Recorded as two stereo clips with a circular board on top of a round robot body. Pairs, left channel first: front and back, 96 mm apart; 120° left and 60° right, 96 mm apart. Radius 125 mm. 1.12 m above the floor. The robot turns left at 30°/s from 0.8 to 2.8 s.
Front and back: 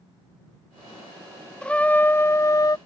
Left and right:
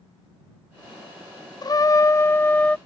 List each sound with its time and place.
1.6 s a trumpet: 80° left; by 2.8 s 45° left